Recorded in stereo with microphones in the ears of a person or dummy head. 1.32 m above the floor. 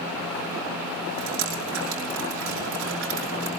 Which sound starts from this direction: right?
Dripping, at 1.2 s.